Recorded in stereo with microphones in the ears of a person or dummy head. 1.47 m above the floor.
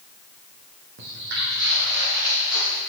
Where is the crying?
I don't hear crying.